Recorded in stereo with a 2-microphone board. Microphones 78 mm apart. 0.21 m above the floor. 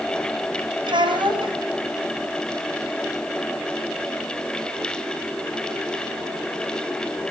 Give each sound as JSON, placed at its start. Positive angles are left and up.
{"t": 0.8, "sound": "a child speaking", "side_deg": -80, "distance_m": 6.0}